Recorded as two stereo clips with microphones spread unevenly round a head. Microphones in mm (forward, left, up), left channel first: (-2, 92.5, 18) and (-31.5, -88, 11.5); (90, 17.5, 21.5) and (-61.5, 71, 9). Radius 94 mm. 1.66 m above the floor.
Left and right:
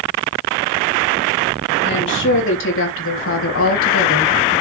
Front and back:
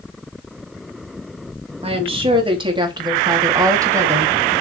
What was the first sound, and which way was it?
A woman speaking, 105° left.